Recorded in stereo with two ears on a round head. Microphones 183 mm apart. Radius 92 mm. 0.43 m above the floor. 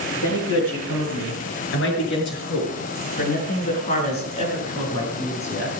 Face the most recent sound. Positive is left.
turn(degrees=10)  # may be behind; listen again after turning